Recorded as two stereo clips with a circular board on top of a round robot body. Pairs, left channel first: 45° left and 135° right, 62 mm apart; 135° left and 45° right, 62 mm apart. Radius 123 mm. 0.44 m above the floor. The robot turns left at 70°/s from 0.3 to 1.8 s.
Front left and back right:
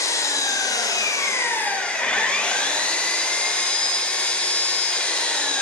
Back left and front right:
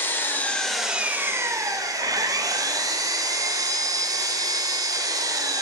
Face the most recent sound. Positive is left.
turn(degrees=-30)